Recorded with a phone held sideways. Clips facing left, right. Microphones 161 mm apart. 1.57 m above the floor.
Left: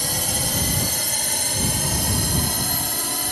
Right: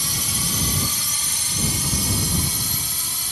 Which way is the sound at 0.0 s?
55° left (ahead or behind).